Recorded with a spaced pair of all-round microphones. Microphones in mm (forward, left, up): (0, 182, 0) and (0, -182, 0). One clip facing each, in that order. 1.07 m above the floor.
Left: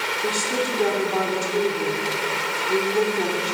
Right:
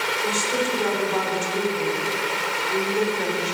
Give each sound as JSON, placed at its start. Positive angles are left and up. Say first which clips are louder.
{"t": 0.2, "sound": "a woman speaking", "louder": "left 1 dB", "side_deg": 55, "distance_m": 4.0}